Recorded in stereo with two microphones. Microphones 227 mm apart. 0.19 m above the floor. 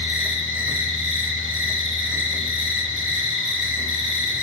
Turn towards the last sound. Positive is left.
turn(degrees=-60)  # may be behind; listen again after turning